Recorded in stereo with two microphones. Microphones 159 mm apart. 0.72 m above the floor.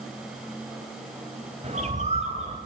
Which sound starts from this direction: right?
A bird, at 1.6 s.